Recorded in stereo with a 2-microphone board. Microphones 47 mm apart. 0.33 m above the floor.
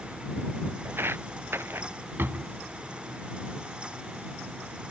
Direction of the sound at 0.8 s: 55° right (ahead or behind).